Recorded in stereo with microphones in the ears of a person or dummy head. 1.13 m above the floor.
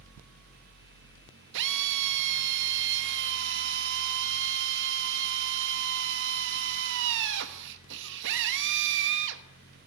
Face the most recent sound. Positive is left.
turn(degrees=-65)  # may be behind; listen again after turning